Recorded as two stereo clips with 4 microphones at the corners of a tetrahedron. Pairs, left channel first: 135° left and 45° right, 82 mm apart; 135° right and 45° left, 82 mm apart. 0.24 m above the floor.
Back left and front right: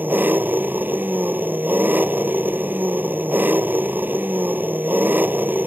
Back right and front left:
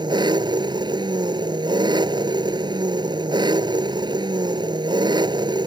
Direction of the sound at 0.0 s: 20° left.